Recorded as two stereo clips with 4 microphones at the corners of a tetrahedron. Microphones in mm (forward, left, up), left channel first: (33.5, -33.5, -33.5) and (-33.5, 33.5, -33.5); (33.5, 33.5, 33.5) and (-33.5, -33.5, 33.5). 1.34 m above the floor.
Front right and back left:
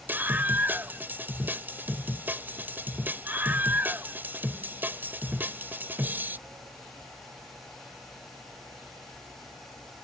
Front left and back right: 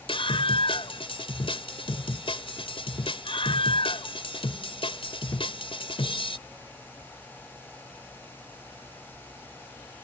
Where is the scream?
65° left.